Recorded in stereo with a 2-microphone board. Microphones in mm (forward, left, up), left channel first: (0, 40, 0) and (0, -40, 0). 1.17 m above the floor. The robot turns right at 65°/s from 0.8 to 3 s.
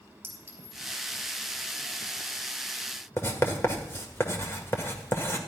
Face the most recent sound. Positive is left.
turn(degrees=30)  # may be behind; listen again after turning